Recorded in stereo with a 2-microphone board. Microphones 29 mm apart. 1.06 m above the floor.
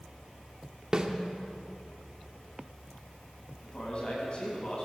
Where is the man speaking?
35° left (ahead or behind), 9 m.